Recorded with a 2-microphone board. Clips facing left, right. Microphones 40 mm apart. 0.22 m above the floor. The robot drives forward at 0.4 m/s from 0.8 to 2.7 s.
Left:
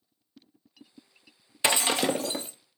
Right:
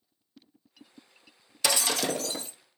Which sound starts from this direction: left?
Breaking glass, at 1.6 s.